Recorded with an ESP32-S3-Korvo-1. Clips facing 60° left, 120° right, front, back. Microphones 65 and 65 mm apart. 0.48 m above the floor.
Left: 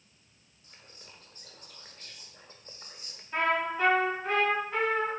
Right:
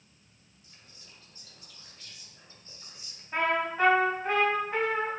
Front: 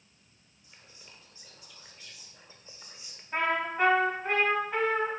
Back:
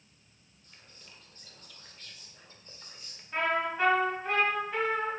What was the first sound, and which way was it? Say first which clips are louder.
Whispering: left 4 dB, front 1 dB; 75° left.